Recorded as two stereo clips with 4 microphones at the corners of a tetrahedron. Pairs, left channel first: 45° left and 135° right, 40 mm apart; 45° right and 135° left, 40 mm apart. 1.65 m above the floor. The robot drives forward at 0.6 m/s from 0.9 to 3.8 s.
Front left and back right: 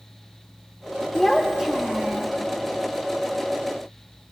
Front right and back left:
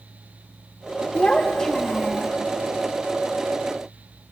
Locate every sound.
1.1 s a child speaking: 30° right, 0.8 m; by 2.3 s 150° right, 0.8 m